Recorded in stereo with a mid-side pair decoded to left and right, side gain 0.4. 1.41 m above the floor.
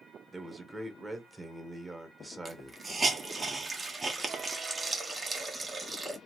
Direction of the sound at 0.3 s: 15° right.